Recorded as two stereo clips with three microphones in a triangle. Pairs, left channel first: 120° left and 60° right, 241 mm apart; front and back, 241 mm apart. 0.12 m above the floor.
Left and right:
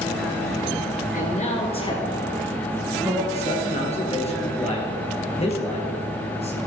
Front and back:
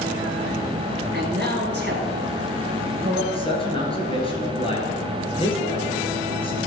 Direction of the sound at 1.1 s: 160° left.